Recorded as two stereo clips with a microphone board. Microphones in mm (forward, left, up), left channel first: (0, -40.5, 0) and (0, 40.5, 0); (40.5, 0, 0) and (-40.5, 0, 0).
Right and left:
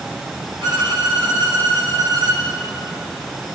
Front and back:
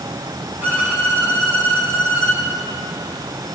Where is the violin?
115° left, 9 m.